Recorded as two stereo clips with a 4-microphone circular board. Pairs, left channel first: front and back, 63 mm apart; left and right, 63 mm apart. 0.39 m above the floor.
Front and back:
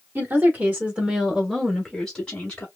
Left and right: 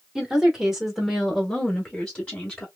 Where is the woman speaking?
165° right, 1.4 m; by 2.7 s 40° left, 1.3 m.